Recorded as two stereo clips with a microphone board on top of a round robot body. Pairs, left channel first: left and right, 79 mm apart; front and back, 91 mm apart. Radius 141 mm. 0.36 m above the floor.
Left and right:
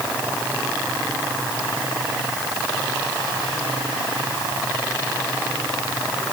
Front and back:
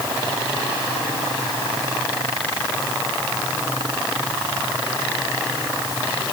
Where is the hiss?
No hiss in this recording.